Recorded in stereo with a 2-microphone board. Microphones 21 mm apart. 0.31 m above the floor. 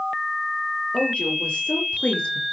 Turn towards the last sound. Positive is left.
turn(degrees=80)